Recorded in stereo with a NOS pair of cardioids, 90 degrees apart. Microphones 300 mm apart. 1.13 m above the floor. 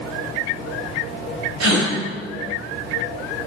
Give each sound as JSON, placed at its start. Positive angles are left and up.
{"t": 1.6, "sound": "a gasp", "azimuth_deg": -65, "distance_m": 2.5}